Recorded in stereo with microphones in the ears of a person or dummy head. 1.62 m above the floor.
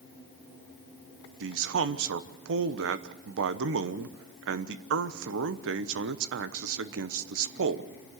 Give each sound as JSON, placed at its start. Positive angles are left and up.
{"t": 1.4, "sound": "a man speaking", "side_deg": -80, "distance_m": 1.0}